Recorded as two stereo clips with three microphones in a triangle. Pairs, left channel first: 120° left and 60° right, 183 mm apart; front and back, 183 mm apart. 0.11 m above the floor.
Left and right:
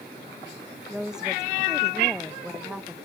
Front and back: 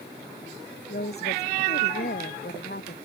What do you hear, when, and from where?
0.9 s a woman speaking: 25° left